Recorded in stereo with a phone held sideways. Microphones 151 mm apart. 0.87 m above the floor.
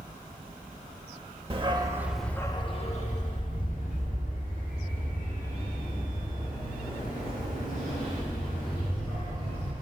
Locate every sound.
1.5 s a dog barking: 40° right (ahead or behind), 0.8 m; by 9.7 s 75° left (ahead or behind), 5.5 m